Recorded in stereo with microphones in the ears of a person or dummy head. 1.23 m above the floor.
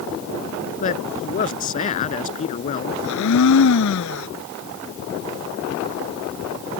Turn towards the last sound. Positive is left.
turn(degrees=75)  # may be behind; listen again after turning